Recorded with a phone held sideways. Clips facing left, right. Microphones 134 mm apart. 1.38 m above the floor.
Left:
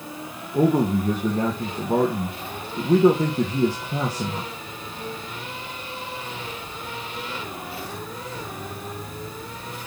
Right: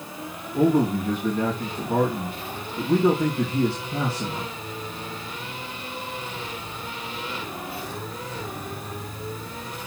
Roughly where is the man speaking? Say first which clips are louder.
Even; left.